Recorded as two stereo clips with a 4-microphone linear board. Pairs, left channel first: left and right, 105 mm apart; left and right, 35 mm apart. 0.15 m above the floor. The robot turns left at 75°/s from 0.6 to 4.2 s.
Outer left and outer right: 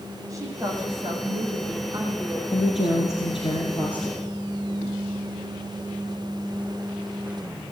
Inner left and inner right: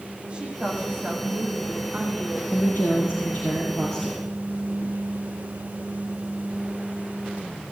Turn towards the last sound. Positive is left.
turn(degrees=0)